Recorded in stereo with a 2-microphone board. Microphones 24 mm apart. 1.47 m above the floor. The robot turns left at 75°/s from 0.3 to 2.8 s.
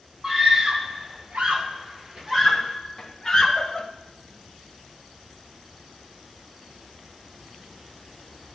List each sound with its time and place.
0.2 s a scream: centre (ahead or behind), 1.5 m; by 3.9 s 10° left (ahead or behind), 1.5 m